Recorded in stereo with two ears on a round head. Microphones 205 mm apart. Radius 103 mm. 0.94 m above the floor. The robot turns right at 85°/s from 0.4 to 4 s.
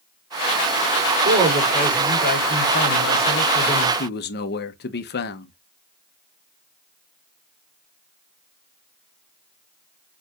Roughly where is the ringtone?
I don't hear a ringtone.